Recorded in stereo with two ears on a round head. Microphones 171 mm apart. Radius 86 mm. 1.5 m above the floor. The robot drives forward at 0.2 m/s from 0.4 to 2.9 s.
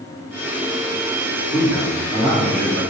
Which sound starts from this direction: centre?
A man speaking, at 1.5 s.